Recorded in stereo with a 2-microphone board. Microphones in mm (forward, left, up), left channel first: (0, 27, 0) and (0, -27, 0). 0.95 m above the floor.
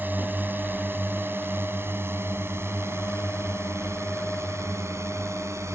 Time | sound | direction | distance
0.0 | a drone | 35° right (ahead or behind) | ?